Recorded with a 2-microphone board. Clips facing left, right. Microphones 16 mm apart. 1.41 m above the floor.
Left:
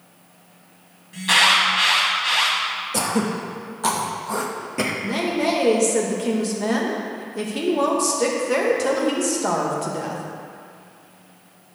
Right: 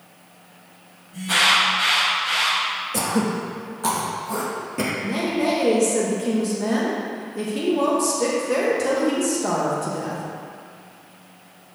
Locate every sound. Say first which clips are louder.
1.1 s an alarm: left 2 dB; 80° left, 2 m
2.9 s throat clearing: left 1 dB; 20° left (ahead or behind), 0.7 m
5.0 s a woman speaking: even; 20° left (ahead or behind), 1.1 m